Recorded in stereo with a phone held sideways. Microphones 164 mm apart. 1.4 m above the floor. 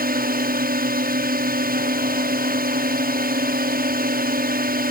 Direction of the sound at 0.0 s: 65° right (ahead or behind).